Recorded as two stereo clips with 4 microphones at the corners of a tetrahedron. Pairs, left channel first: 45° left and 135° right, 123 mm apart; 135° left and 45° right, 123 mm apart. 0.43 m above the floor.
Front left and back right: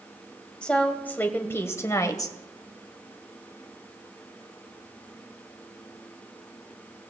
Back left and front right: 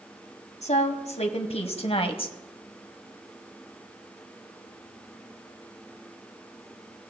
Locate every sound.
0.6 s a woman speaking: 125° left, 2 m; by 2.4 s 100° left, 1.8 m